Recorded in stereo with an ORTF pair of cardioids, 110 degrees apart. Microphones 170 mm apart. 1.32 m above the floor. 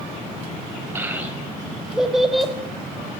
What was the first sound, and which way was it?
A child speaking, 15° right.